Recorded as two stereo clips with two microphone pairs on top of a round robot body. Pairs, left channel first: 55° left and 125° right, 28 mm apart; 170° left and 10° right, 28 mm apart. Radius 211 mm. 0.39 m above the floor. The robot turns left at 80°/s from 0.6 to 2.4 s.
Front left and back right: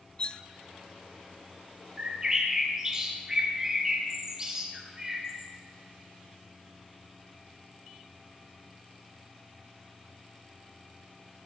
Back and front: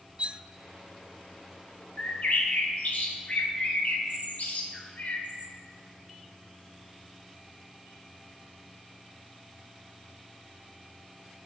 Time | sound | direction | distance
0.2 | cutlery clinking | 20° left | 0.6 m
2.0 | a bird | 155° right | 2.5 m